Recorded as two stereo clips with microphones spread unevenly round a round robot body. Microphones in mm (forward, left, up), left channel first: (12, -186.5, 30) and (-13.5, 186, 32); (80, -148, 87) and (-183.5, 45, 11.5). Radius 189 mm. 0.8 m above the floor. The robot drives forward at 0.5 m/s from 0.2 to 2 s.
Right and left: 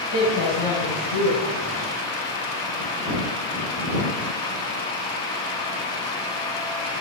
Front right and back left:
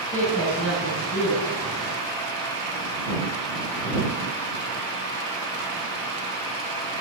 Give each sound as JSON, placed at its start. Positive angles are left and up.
{"t": 0.1, "sound": "a woman speaking", "azimuth_deg": -105, "distance_m": 6.5}